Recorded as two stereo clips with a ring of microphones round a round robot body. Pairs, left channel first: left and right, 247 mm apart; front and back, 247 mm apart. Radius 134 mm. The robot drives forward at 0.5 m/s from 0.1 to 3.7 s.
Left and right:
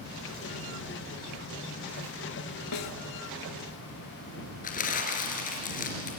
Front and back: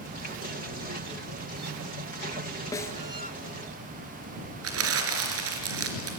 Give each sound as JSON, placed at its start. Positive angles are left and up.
{"t": 2.7, "sound": "a snare drum", "azimuth_deg": 80, "distance_m": 2.0}
{"t": 4.6, "sound": "crumpling", "azimuth_deg": 150, "distance_m": 3.0}